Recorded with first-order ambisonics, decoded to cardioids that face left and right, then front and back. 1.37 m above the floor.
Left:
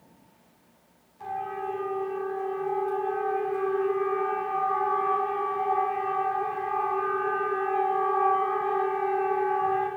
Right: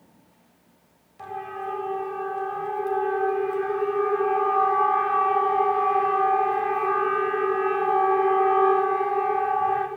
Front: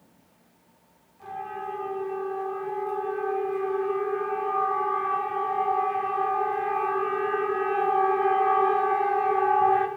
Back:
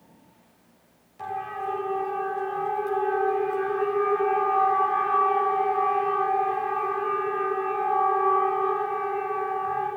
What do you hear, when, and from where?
1.2 s a siren: 130° right, 6.5 m; by 9.9 s 35° right, 4 m